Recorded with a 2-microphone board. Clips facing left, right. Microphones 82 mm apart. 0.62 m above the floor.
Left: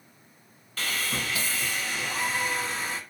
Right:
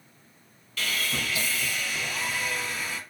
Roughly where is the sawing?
Left.